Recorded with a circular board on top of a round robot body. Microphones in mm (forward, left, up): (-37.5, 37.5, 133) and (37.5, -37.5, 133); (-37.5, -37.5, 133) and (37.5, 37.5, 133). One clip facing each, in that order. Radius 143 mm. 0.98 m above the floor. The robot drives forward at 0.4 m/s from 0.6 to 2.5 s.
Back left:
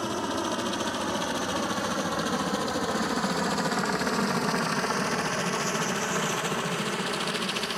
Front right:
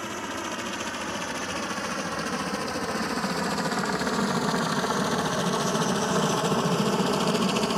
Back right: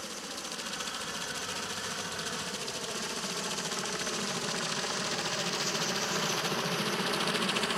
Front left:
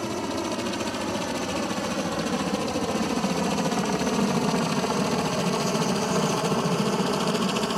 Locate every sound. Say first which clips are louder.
0.0 s a helicopter: back left 4 dB, front left 15 dB; 65° left; by 7.8 s 5° right